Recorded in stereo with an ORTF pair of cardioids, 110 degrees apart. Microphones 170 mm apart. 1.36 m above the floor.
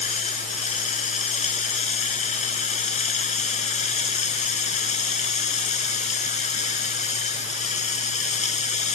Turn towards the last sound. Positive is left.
turn(degrees=40)